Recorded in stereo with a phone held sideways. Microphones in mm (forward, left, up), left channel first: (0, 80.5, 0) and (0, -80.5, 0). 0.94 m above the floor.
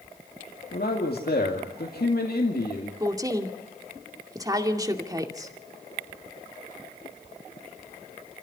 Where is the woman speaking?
20° right (ahead or behind), 2 m.